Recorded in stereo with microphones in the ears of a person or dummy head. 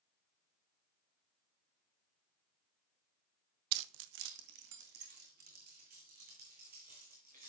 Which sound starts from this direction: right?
Keys jangling, at 3.7 s.